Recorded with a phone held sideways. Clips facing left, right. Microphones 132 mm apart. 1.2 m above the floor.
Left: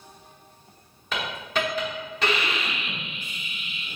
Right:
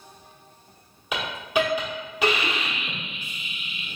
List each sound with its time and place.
1.1 s a hiss: 10° right (ahead or behind), 1.1 m